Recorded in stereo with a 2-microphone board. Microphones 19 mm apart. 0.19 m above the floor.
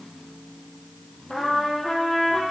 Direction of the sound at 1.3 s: 35° left (ahead or behind).